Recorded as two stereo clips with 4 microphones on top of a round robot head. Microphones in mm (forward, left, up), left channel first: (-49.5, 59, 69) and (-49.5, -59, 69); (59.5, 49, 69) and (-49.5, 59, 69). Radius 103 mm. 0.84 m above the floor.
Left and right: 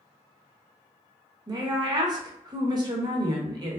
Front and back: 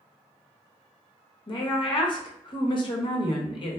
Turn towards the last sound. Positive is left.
turn(degrees=-40)